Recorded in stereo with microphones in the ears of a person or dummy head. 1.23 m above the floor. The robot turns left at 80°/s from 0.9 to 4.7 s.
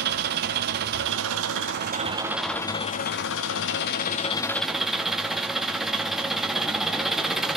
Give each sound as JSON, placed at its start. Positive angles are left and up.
{"t": 0.0, "sound": "an engine running", "azimuth_deg": -55, "distance_m": 1.3}